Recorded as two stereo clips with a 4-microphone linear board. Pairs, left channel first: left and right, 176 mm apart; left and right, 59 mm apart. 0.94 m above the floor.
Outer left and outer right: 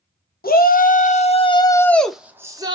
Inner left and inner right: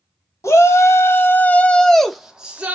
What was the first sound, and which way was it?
A shout, 60° left (ahead or behind).